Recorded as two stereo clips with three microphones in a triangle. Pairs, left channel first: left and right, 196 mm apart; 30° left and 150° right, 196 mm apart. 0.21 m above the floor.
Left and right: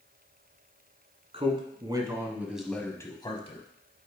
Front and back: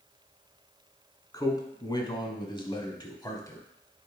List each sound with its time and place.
1.3 s a man speaking: 40° right, 1.7 m; by 3.7 s 95° left, 1.2 m